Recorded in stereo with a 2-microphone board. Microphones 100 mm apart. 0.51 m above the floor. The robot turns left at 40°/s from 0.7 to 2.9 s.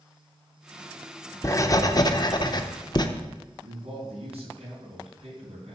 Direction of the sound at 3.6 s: 80° right.